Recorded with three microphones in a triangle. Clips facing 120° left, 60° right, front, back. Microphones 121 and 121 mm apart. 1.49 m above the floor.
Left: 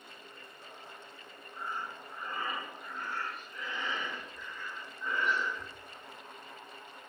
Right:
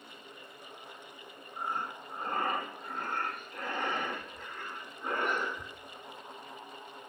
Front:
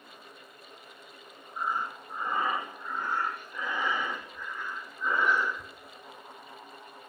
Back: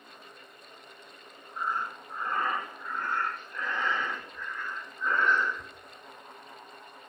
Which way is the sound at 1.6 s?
80° right.